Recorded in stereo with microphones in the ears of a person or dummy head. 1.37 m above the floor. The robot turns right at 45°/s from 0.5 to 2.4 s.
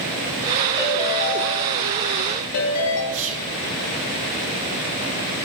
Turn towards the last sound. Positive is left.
turn(degrees=-65)  # may be behind; listen again after turning